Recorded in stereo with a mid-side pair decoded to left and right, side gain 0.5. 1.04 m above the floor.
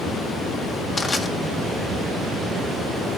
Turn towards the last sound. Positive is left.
turn(degrees=35)